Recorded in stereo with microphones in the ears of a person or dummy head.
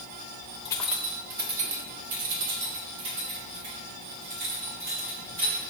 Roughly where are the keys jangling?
Left.